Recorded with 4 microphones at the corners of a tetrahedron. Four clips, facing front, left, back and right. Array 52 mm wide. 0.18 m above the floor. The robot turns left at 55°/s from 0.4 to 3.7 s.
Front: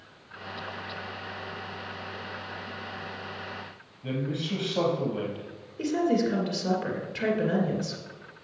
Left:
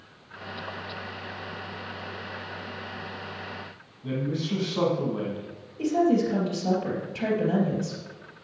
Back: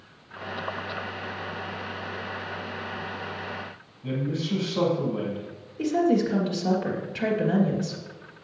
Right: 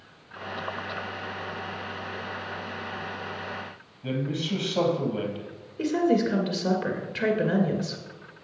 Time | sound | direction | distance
4.0 | a man speaking | 65° right | 4.5 m
5.8 | a woman speaking | 75° right | 2.5 m